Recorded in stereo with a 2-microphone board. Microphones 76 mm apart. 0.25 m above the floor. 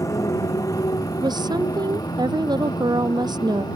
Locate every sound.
0.0 s a motorcycle: 50° left (ahead or behind); by 3.8 s 70° left (ahead or behind)
1.2 s a woman speaking: 80° right